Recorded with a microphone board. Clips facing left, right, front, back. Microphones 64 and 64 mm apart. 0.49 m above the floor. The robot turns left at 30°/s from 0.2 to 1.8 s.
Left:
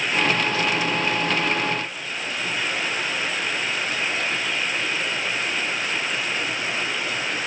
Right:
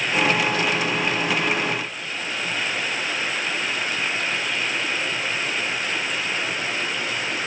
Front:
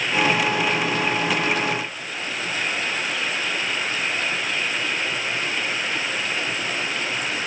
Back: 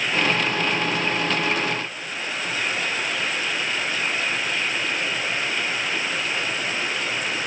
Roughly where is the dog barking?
I don't hear a dog barking.